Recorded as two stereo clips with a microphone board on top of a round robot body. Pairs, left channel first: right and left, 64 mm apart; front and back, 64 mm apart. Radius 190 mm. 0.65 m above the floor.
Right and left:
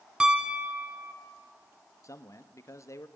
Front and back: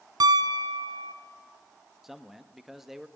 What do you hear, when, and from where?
0.2 s a piano: 165° left, 0.9 m
2.0 s a man speaking: 95° right, 1.5 m